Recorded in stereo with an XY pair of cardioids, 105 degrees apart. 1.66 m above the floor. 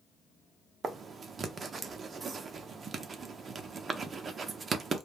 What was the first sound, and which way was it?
Writing, 40° right.